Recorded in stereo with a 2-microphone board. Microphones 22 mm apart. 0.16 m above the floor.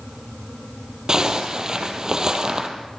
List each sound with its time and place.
1.1 s a zipper: 30° right (ahead or behind), 3.5 m